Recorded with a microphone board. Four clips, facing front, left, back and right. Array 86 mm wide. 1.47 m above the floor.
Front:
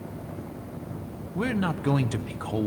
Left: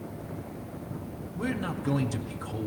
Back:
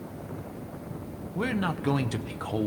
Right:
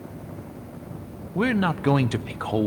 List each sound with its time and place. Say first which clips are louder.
1.4 s a man speaking: right 9 dB, front 2 dB; 85° right, 0.7 m